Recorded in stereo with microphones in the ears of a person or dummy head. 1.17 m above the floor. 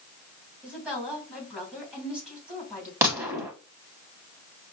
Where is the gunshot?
10° right (ahead or behind), 0.7 m.